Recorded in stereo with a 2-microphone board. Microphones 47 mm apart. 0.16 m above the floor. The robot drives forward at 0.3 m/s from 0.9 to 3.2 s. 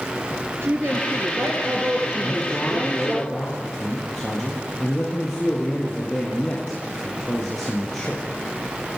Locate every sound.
0.6 s a woman speaking: 65° right (ahead or behind), 3.5 m; by 3.2 s 60° right (ahead or behind), 3.5 m
2.2 s a man speaking: 10° left (ahead or behind), 5.5 m